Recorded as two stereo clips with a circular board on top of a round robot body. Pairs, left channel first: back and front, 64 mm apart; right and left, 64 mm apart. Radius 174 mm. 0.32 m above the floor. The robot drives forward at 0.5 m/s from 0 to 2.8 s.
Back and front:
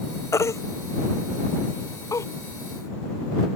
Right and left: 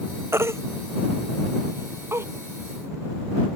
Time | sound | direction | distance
0.3 | a baby crying | 140° left | ?